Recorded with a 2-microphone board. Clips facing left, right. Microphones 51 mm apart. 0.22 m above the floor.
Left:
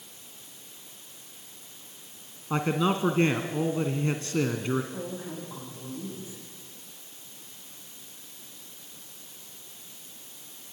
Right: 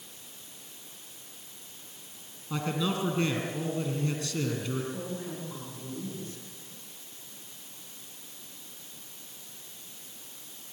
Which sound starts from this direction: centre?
A woman speaking, at 4.9 s.